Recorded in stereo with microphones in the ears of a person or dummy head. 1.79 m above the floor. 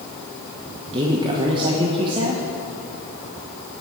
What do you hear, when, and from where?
0.9 s a woman speaking: 30° right (ahead or behind), 1.2 m